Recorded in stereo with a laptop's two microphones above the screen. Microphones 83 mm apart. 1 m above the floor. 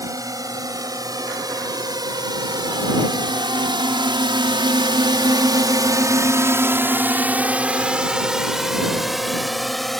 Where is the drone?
45° right (ahead or behind); by 10.0 s 5° left (ahead or behind).